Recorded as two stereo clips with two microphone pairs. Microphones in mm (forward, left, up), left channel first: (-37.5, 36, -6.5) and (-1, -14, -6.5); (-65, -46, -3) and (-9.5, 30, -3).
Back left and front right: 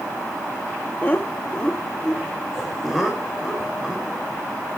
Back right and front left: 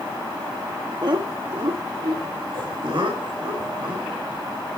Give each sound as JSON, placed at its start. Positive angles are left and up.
{"t": 1.0, "sound": "laughter", "azimuth_deg": 80, "distance_m": 1.1}